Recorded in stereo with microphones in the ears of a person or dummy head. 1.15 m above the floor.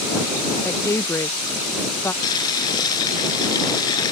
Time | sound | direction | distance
0.6 | a woman speaking | 15° left (ahead or behind) | ?
2.2 | boiling | 20° left (ahead or behind) | ?